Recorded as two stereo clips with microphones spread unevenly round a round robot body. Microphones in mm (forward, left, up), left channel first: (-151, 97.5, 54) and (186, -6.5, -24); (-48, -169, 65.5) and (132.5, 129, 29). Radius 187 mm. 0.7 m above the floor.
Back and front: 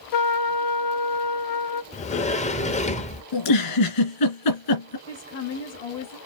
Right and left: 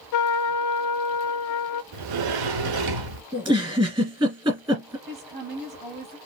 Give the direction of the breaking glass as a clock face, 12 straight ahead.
I don't hear breaking glass.